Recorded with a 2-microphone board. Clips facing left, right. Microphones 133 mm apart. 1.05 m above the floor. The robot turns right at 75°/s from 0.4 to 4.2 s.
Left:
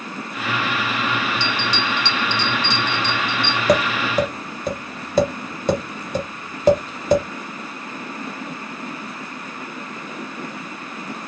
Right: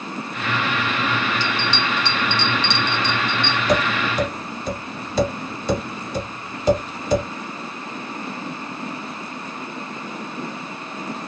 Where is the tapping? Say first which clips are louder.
Left 4 dB; 65° left (ahead or behind), 1.3 m; by 7.2 s 50° left (ahead or behind), 1.3 m.